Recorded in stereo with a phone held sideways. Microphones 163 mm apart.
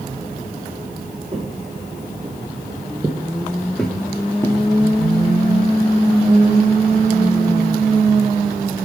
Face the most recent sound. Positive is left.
turn(degrees=15)  # may be behind; listen again after turning